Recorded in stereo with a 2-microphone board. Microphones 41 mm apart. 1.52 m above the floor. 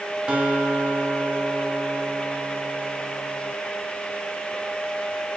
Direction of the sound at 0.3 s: 25° right (ahead or behind).